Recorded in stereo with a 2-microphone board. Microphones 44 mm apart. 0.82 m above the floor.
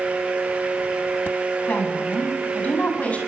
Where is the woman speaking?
40° left (ahead or behind), 7.5 m; by 3.2 s 30° left (ahead or behind), 7.5 m.